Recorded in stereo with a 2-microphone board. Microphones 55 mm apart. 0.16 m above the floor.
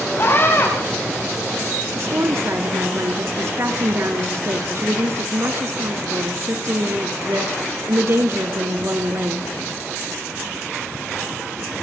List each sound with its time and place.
0.2 s a scream: 50° left (ahead or behind), 7 m
1.9 s a woman speaking: 55° right (ahead or behind), 3 m